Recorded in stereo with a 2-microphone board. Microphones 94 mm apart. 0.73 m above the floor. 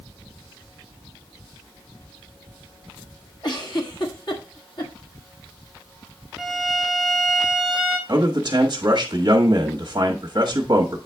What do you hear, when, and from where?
3.4 s a giggle: 50° left (ahead or behind), 1.4 m
6.4 s a violin: centre (ahead or behind), 0.9 m
8.1 s a man speaking: 40° right (ahead or behind), 1.2 m